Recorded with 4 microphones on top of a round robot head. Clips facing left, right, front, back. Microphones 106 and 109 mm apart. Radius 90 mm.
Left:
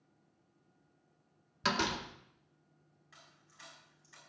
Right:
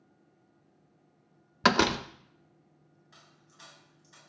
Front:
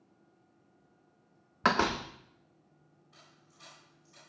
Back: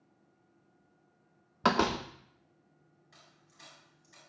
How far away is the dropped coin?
About 9.5 m.